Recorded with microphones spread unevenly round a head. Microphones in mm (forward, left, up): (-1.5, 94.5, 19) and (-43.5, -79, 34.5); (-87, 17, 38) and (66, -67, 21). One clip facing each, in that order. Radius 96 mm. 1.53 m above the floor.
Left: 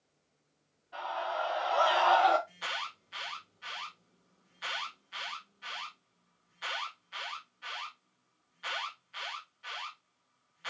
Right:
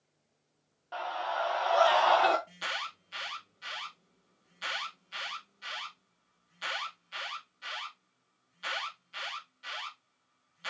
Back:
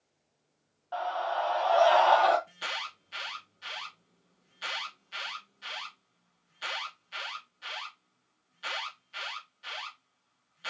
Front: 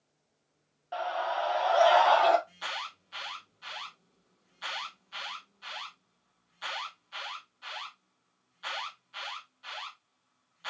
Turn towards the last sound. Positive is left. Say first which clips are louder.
# right 1 dB, even
turn(degrees=-145)